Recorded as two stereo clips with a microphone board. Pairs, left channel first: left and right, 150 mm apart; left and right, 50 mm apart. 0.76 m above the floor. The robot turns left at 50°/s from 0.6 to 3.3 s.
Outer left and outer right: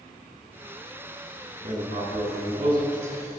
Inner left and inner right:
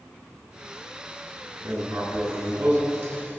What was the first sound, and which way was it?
Writing, 55° right (ahead or behind).